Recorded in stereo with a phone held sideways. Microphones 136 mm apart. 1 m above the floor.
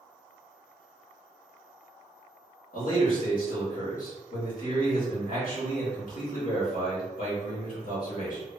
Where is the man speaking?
80° left, 1.6 m.